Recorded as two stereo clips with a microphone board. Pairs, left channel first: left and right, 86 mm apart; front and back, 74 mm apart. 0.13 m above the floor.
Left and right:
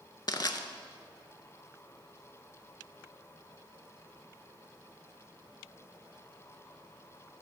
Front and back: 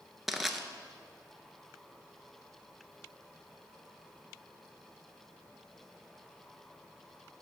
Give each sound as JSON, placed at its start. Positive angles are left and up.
{"t": 0.3, "sound": "crushing", "azimuth_deg": 95, "distance_m": 0.5}